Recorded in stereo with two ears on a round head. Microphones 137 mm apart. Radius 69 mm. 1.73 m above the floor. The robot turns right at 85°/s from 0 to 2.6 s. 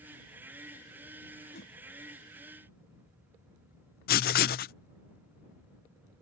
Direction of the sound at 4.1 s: 65° left (ahead or behind).